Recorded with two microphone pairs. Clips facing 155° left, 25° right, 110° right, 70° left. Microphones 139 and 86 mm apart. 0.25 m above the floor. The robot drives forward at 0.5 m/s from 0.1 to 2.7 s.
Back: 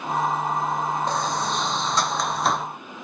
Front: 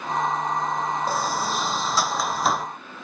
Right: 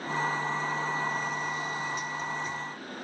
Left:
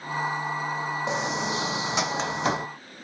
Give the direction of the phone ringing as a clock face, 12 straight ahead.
I don't hear a phone ringing.